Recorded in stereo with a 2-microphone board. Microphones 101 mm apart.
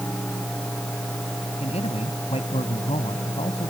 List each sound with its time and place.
1.6 s a man speaking: 80° left